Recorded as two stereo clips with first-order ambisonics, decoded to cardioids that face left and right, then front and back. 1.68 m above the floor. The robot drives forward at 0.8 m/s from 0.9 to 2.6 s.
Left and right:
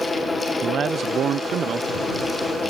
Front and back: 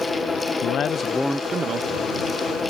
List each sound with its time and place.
0.6 s a man speaking: 40° right; by 1.9 s 150° right